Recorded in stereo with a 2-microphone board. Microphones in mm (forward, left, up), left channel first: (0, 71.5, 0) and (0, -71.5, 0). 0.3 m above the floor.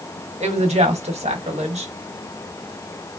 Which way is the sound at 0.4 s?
50° right (ahead or behind).